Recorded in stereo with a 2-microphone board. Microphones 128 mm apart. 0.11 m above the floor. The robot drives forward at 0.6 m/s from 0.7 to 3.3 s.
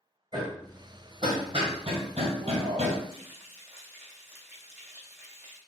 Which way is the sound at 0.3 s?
35° right (ahead or behind).